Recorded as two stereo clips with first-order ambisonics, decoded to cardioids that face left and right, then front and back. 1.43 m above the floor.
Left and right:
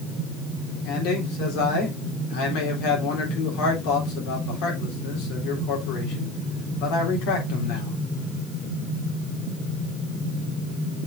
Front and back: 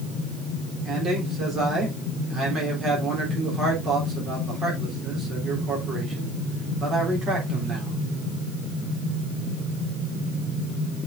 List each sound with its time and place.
0.8 s a man speaking: 115° left, 3.5 m